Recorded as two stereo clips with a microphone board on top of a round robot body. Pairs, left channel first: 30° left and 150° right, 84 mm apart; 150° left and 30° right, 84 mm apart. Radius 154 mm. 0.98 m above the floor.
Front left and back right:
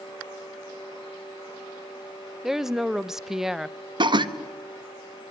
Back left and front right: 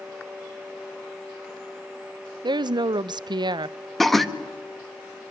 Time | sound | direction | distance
2.4 | a woman speaking | 65° right | 0.5 m
4.0 | laughter | 120° right | 1.7 m